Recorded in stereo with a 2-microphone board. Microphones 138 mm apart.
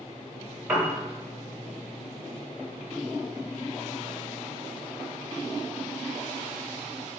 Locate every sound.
0.7 s a piano: 15° right (ahead or behind), 0.7 m